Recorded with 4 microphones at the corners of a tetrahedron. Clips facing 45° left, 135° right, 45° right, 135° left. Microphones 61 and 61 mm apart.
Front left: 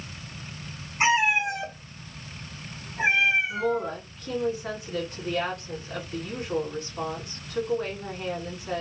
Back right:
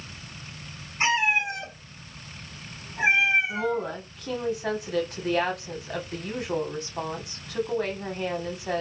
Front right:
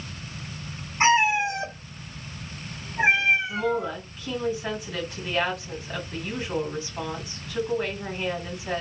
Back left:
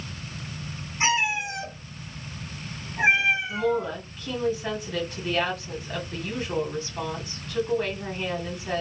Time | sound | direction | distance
1.0 | a cat meowing | 25° right | 1.3 m
3.5 | a woman speaking | 135° right | 1.8 m